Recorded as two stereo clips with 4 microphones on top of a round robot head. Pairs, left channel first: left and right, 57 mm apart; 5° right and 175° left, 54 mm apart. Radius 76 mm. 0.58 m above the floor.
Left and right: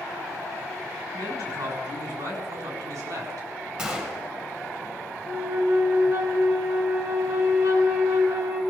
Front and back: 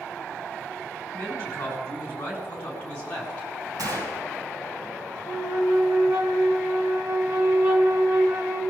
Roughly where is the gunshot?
Behind.